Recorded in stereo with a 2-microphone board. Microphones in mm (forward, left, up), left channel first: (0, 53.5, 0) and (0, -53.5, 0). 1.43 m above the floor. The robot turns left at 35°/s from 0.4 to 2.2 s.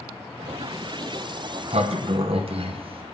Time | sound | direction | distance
1.2 | a sliding door | 80° right | 0.7 m